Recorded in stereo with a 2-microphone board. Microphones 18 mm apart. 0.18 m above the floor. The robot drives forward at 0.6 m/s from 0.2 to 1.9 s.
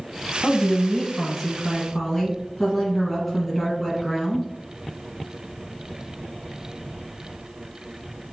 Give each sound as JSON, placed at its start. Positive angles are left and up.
{"t": 0.4, "sound": "a woman speaking", "side_deg": 10, "distance_m": 1.0}